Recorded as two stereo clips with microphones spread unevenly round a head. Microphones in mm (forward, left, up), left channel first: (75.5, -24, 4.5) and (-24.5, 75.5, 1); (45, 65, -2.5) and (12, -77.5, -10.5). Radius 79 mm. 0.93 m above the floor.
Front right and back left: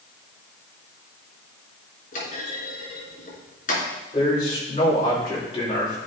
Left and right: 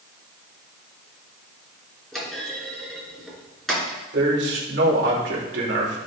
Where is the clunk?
10° right, 3.5 m.